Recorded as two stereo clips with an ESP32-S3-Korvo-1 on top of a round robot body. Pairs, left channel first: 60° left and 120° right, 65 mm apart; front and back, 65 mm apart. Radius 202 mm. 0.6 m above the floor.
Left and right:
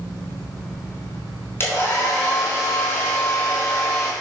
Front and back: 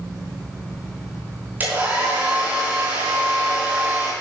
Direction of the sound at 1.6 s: 115° left.